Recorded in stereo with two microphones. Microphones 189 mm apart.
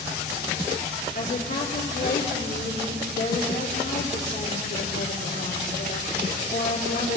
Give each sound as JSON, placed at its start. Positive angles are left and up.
{"t": 1.1, "sound": "a woman speaking", "side_deg": 65, "distance_m": 3.0}